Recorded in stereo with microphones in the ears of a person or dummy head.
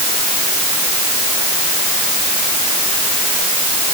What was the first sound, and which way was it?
Only background noise.